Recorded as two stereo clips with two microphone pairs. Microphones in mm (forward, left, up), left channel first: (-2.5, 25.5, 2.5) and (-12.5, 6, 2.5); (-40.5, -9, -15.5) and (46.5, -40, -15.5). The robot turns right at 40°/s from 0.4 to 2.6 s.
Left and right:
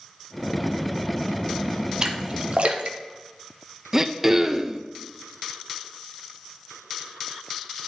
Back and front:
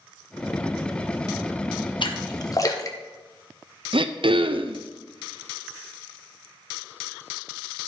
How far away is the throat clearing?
About 0.5 m.